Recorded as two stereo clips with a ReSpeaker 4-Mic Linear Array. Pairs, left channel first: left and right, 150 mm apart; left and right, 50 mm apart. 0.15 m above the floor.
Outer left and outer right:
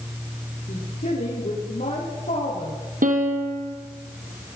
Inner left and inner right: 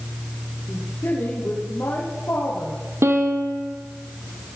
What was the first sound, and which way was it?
A woman speaking, 70° left (ahead or behind).